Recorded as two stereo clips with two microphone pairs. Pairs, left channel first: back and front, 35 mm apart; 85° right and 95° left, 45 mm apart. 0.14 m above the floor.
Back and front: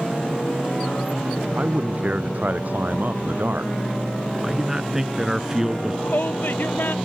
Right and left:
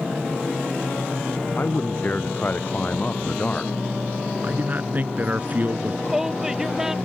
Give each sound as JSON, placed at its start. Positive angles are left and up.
{"t": 1.6, "sound": "a man speaking", "azimuth_deg": -40}
{"t": 4.4, "sound": "a man speaking", "azimuth_deg": 70}
{"t": 6.0, "sound": "a shout", "azimuth_deg": 175}